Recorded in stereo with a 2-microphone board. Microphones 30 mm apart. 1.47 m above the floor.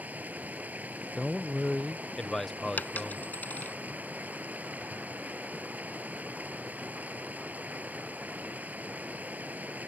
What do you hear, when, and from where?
0.0 s running water: 60° right (ahead or behind)
1.2 s a man speaking: 15° left (ahead or behind)
2.8 s a dropped coin: 70° left (ahead or behind)